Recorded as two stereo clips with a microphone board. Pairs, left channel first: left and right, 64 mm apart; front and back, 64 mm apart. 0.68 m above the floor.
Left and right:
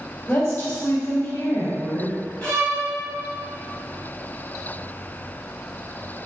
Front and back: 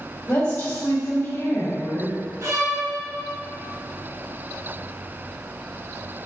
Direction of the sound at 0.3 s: 35° left.